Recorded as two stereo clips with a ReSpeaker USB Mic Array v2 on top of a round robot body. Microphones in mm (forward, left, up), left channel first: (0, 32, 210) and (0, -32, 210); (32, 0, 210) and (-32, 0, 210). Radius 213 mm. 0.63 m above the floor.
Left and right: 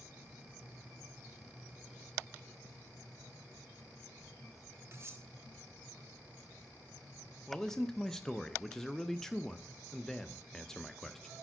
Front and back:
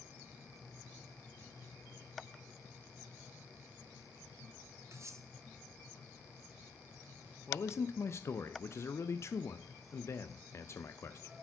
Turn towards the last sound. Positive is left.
turn(degrees=10)